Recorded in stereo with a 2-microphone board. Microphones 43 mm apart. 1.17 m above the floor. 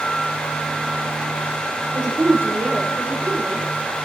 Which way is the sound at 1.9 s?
70° right (ahead or behind).